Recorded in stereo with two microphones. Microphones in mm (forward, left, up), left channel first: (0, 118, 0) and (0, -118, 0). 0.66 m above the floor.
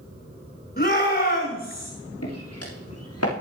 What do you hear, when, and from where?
0.8 s a shout: 40° left (ahead or behind), 7 m
2.2 s footsteps: 85° left, 7 m